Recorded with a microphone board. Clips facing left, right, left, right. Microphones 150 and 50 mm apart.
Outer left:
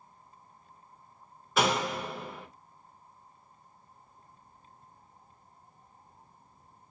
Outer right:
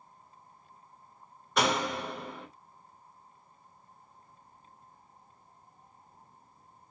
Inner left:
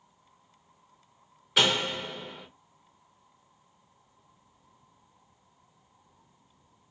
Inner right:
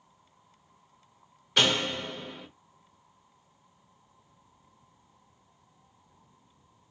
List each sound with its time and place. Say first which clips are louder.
1.6 s a door slam: outer left 1 dB, even; centre (ahead or behind), 0.6 m